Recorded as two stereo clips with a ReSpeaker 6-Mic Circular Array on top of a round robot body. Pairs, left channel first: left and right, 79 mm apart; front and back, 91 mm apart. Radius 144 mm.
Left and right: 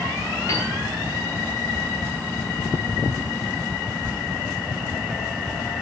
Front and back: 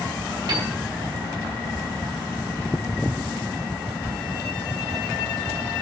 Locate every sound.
0.5 s a piano: 140° left, 7 m